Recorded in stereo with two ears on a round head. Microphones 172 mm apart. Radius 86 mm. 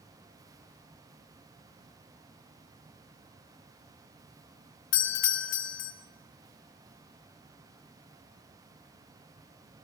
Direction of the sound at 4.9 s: 70° left (ahead or behind).